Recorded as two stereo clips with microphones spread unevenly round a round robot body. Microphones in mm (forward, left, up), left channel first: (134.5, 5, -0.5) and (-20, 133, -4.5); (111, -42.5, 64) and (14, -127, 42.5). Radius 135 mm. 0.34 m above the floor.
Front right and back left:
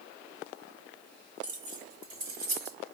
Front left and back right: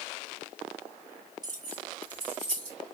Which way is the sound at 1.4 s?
175° left.